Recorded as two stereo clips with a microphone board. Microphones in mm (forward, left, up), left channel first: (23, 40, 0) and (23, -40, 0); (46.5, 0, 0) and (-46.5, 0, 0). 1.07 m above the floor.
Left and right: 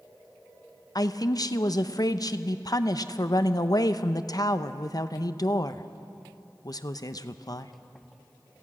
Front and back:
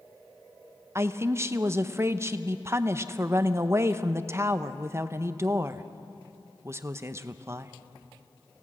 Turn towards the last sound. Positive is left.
turn(degrees=120)